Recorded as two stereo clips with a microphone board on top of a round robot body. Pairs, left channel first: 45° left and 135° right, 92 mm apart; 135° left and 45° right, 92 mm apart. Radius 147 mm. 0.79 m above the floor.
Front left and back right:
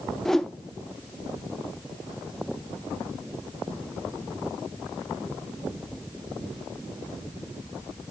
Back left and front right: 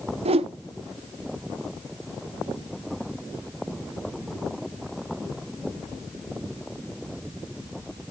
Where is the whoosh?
40° right, 0.5 m.